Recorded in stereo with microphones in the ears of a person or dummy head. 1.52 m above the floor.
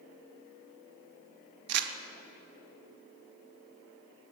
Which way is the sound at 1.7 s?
65° right (ahead or behind).